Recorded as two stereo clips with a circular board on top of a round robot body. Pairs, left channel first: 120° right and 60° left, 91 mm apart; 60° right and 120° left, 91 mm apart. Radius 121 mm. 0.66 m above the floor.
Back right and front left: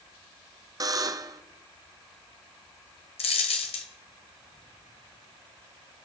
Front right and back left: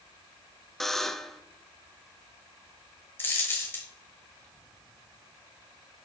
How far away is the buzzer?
About 0.8 m.